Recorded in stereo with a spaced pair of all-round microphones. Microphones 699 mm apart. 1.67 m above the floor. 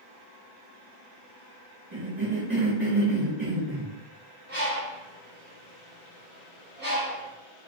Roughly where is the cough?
Right.